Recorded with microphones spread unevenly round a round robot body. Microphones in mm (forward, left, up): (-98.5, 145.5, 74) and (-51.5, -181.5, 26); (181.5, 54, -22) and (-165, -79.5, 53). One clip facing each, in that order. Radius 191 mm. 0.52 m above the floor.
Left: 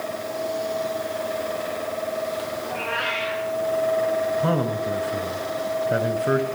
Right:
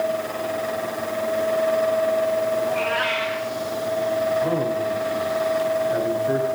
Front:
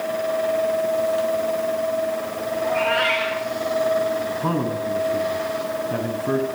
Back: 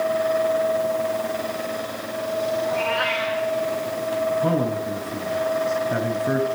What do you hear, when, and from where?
2.6 s a cat meowing: 5° right, 7.5 m
4.4 s a man speaking: 115° left, 4 m